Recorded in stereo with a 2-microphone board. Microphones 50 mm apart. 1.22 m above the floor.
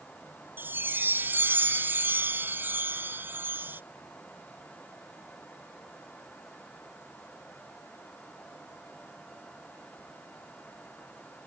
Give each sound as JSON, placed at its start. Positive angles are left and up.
{"t": 0.6, "sound": "a chime", "side_deg": -45}